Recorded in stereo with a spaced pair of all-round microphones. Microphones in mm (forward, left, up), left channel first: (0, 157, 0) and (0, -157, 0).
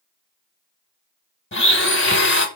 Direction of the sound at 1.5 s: 35° left (ahead or behind).